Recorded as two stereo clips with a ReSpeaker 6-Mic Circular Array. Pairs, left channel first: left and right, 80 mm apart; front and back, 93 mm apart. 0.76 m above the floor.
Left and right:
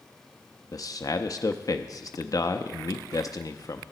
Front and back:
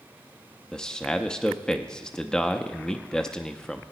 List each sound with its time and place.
0.7 s a man speaking: 80° left, 0.6 m